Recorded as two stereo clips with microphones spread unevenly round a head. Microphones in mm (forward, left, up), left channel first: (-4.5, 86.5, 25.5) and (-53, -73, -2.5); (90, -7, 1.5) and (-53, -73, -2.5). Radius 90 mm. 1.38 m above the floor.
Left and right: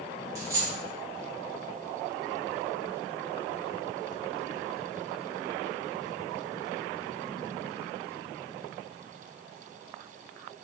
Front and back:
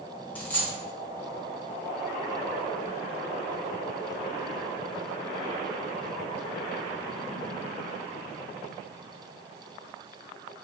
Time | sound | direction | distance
0.3 | a dropped coin | 35° right | 0.6 m